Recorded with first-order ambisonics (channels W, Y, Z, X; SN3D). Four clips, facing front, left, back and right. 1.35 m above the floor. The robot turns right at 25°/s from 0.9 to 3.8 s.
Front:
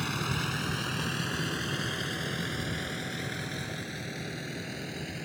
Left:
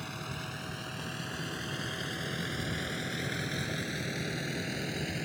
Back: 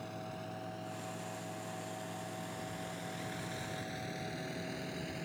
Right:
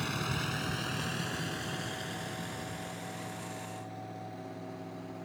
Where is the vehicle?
20° right; by 5.2 s 70° left.